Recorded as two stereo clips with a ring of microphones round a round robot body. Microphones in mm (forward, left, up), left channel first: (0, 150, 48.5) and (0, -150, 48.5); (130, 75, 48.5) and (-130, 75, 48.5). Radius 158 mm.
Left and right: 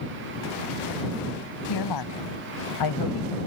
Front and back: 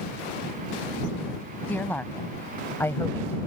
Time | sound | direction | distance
1.7 | a woman speaking | 85° left | ?